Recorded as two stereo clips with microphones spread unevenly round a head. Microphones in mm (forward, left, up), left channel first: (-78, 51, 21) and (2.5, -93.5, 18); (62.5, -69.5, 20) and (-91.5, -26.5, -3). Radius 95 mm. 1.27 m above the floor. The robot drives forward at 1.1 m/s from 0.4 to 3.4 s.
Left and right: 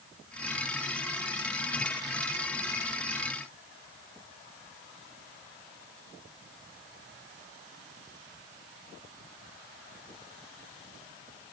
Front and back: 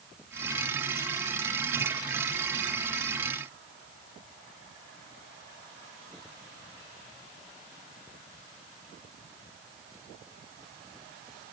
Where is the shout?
No shout in this recording.